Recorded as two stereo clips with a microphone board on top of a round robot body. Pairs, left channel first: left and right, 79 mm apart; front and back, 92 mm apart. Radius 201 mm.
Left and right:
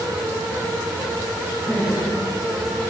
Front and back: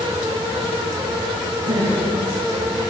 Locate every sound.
1.6 s laughter: 170° left, 7 m; by 2.9 s 165° left, 6.5 m